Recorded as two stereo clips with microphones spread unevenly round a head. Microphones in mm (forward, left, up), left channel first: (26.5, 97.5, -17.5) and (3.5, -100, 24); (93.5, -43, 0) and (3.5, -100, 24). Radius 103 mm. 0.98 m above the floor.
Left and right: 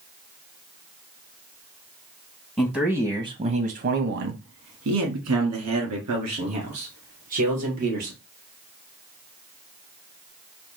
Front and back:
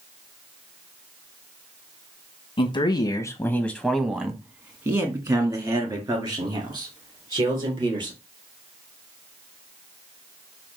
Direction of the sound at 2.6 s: 10° left.